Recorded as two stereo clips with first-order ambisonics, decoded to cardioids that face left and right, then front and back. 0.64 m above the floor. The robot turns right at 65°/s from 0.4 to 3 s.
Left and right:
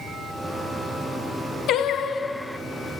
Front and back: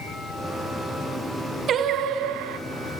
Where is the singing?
125° left, 0.7 m; by 2.6 s 175° right, 0.7 m.